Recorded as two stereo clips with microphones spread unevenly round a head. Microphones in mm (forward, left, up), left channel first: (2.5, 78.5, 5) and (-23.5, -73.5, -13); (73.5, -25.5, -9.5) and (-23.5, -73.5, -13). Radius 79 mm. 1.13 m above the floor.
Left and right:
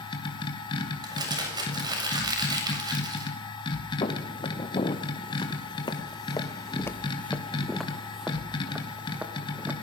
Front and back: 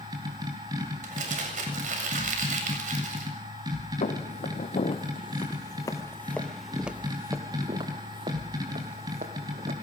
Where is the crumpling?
165° right, 7.5 m.